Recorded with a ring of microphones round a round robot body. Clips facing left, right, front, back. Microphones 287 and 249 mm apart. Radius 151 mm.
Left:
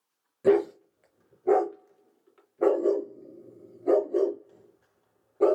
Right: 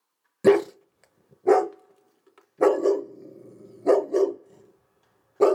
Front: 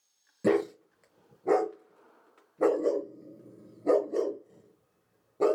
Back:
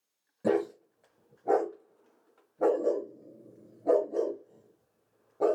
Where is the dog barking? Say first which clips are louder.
Right 3 dB, front 2 dB; 60° right, 0.7 m.